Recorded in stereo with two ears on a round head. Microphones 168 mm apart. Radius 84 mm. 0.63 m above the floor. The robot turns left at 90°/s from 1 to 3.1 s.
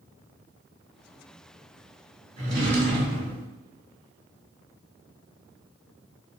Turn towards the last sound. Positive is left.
turn(degrees=-95)